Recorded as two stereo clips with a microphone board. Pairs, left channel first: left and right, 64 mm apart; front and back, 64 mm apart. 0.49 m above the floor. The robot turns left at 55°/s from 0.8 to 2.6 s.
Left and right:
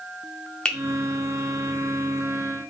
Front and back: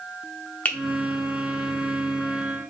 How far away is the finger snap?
About 0.5 m.